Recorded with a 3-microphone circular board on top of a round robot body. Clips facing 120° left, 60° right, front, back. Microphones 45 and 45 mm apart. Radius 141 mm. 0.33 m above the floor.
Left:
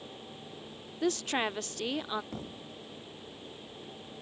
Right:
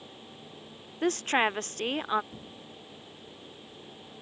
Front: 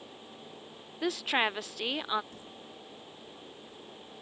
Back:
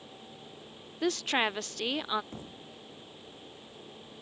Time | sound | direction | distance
1.0 | a woman speaking | 80° right | ?
2.3 | a thud | 125° left | ?